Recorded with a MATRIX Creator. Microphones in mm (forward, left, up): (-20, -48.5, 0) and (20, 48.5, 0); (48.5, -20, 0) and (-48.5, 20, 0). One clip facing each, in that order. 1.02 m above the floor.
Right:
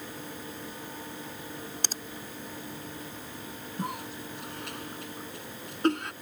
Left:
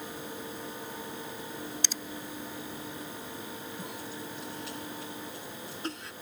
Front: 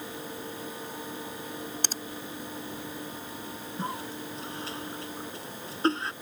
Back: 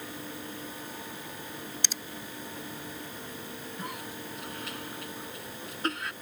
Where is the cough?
85° right.